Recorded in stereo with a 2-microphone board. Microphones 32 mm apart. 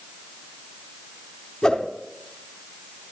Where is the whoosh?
25° left (ahead or behind), 0.9 m.